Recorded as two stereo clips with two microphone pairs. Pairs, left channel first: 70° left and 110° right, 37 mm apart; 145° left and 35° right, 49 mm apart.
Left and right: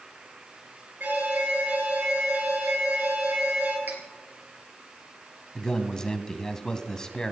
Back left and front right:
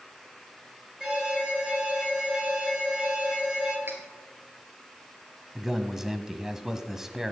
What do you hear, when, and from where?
1.0 s an alarm: 105° right, 4 m
3.9 s cutlery clinking: 80° right, 3 m
5.5 s a man speaking: 35° left, 1.2 m